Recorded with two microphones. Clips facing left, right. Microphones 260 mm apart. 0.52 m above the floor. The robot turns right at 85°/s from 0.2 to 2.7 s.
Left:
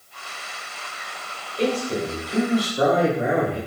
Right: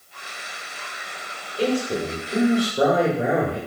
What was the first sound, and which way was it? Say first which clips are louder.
A man speaking: right 1 dB; 165° right.